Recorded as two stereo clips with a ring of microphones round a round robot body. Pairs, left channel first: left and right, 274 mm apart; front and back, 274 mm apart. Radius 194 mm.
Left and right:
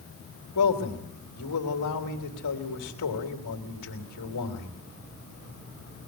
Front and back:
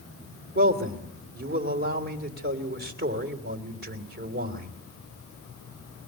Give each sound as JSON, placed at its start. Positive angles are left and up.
{"t": 0.6, "sound": "a man speaking", "azimuth_deg": 135, "distance_m": 3.0}